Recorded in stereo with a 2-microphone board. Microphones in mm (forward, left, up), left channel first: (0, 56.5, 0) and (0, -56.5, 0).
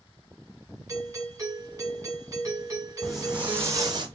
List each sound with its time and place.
0.9 s a doorbell: 30° right (ahead or behind), 1.5 m
3.0 s footsteps: centre (ahead or behind), 1.4 m; by 4.1 s 45° right (ahead or behind), 1.1 m